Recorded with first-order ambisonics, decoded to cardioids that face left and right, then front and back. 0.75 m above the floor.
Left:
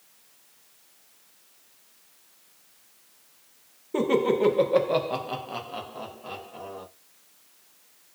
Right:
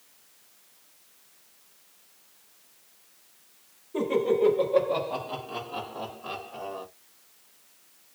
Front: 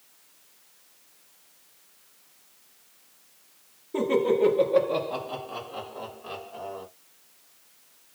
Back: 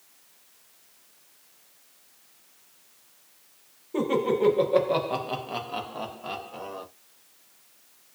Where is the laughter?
90° left, 1.1 m; by 6.8 s 160° right, 1.3 m.